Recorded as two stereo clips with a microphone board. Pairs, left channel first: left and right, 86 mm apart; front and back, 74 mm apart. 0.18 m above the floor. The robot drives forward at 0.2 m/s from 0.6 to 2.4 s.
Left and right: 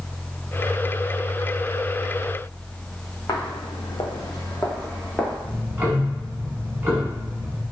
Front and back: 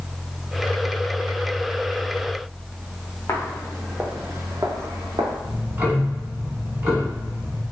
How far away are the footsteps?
About 0.8 m.